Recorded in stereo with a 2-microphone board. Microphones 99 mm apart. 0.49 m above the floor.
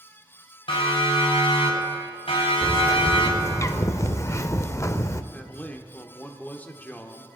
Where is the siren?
60° left (ahead or behind), 5.5 m; by 3.6 s 65° left (ahead or behind), 3 m.